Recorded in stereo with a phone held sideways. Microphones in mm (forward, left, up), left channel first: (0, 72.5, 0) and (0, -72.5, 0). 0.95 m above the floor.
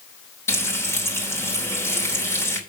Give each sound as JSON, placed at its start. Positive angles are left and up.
{"t": 0.5, "sound": "frying", "side_deg": 15, "distance_m": 4.0}